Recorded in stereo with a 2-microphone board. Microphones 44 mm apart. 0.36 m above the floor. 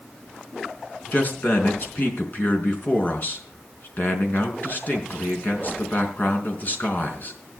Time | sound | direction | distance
1.1 | a man speaking | 45° left (ahead or behind) | 4.5 m